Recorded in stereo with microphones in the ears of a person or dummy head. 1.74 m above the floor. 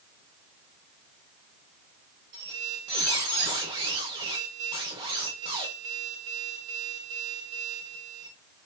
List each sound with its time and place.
2.3 s a squeak: 20° right (ahead or behind), 2 m